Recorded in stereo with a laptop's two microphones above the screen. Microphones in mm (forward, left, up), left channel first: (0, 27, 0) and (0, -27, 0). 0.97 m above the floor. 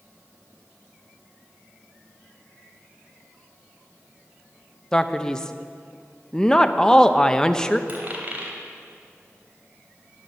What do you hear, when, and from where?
4.9 s a man speaking: 15° left (ahead or behind), 0.8 m
7.9 s a dropped coin: 35° right (ahead or behind), 3 m